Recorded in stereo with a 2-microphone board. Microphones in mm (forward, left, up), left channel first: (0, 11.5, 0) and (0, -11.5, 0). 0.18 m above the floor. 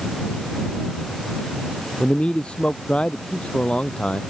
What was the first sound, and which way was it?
A man speaking, 50° left (ahead or behind).